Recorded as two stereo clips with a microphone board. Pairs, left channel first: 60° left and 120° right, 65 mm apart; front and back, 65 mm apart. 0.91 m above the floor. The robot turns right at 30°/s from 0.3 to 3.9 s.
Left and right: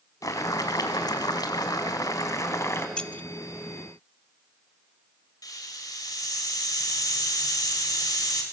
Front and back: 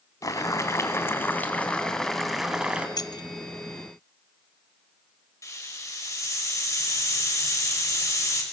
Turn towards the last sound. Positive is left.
turn(degrees=35)